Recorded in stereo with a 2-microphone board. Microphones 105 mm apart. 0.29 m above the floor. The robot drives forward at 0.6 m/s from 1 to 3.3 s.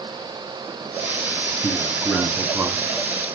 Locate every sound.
1.6 s a man speaking: 20° right (ahead or behind), 1.9 m; by 2.9 s 15° right (ahead or behind), 2.5 m